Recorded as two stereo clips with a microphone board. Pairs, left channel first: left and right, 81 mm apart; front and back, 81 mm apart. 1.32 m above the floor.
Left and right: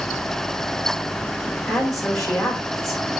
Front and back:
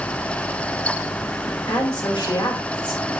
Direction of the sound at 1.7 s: 40° left.